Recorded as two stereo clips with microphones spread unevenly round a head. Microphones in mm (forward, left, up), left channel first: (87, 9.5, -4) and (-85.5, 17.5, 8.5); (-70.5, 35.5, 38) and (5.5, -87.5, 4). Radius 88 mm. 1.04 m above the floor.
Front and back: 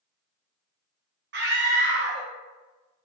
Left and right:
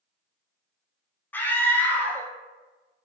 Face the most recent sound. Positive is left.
turn(degrees=-155)